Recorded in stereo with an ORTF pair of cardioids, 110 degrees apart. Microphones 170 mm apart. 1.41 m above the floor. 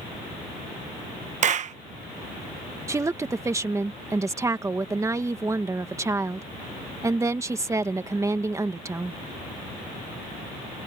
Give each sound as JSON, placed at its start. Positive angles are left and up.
{"t": 1.4, "sound": "a clap", "azimuth_deg": -45}
{"t": 2.9, "sound": "a woman speaking", "azimuth_deg": -15}